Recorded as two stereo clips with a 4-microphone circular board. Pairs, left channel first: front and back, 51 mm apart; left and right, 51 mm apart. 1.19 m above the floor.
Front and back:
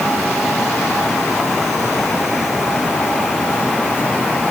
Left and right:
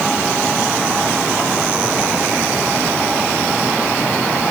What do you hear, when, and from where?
Only background noise.